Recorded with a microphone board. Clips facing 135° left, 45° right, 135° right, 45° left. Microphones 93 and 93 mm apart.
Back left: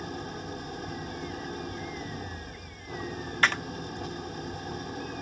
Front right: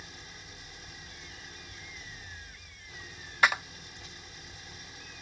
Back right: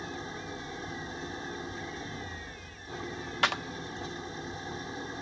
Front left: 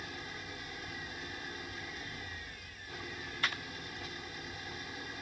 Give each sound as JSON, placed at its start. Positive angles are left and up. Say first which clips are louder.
{"t": 0.0, "sound": "an engine running", "louder": "back left 14 dB, back right 6 dB", "azimuth_deg": 165}
{"t": 3.4, "sound": "a clap", "louder": "front right 1 dB, back right 9 dB", "azimuth_deg": -125}